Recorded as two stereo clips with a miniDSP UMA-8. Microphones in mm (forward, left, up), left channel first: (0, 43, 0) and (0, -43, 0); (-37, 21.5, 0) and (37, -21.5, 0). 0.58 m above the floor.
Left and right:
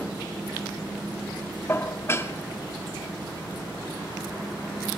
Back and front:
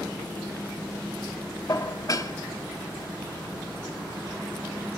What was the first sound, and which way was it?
Dishes clattering, 135° left.